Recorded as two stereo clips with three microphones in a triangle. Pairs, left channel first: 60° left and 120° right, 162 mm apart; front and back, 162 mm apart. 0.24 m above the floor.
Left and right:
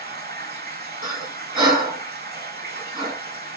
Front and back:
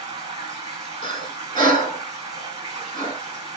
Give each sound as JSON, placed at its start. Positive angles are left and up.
{"t": 0.0, "sound": "running water", "azimuth_deg": -110, "distance_m": 1.6}
{"t": 1.0, "sound": "breathing", "azimuth_deg": -55, "distance_m": 2.0}